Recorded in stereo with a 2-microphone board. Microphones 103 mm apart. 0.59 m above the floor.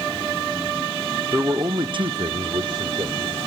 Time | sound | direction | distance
1.3 | a man speaking | 20° right (ahead or behind) | 1.1 m